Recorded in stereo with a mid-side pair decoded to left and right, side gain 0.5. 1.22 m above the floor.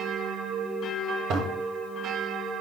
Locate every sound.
1.3 s a toilet flushing: 65° right, 1.1 m